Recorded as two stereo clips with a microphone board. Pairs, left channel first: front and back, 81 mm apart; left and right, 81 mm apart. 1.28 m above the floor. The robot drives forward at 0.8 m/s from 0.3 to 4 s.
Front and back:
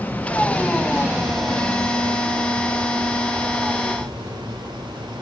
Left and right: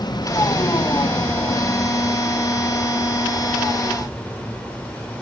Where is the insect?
70° left, 0.9 m; by 5.2 s 165° left, 3 m.